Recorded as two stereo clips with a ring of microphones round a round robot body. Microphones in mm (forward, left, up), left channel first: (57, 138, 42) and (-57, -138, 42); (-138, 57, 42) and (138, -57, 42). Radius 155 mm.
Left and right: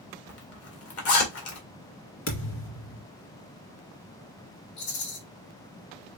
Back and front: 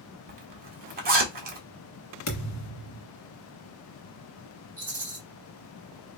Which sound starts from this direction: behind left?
A thud, at 2.3 s.